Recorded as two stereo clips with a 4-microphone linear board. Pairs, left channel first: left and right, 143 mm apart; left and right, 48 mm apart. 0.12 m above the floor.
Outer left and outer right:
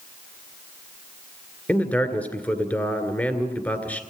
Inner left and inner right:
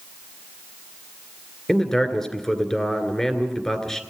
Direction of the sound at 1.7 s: 10° left (ahead or behind).